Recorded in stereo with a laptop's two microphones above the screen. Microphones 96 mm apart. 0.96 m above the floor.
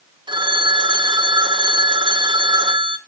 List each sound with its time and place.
0.3 s a phone ringing: 55° right (ahead or behind), 1.5 m